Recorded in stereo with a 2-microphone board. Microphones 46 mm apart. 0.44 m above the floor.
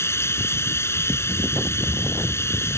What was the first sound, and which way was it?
Running water, 70° left (ahead or behind).